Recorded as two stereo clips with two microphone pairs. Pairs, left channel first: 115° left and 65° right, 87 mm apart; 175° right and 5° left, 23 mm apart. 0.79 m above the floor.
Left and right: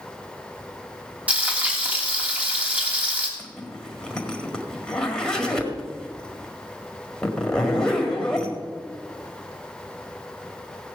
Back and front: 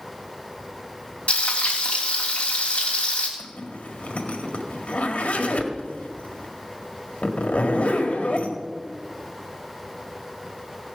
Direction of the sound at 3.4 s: 165° right.